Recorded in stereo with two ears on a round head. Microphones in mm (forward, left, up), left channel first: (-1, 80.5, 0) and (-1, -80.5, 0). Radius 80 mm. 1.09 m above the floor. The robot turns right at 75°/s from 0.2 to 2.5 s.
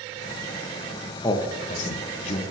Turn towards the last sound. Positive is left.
turn(degrees=125)